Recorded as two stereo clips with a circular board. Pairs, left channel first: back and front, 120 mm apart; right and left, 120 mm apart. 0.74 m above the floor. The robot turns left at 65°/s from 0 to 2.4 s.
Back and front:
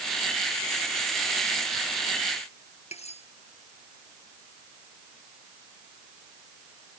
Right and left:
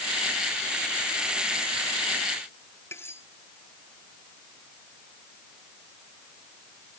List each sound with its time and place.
2.9 s cutlery clinking: 160° right